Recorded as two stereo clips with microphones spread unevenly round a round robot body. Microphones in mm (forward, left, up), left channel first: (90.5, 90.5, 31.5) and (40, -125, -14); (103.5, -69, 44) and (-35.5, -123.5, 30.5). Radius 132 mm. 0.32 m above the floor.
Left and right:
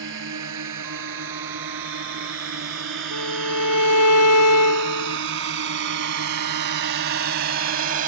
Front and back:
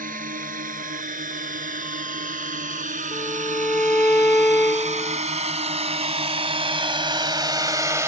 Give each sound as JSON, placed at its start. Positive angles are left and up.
{"t": 0.0, "sound": "a drone", "azimuth_deg": -140}
{"t": 3.1, "sound": "a violin", "azimuth_deg": 105}